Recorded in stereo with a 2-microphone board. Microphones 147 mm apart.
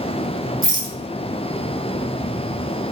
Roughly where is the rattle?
Right.